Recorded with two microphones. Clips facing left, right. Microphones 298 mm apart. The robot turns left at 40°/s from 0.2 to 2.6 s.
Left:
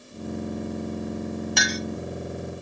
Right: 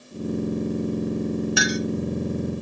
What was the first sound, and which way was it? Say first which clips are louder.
A clink: right 5 dB; 10° right (ahead or behind).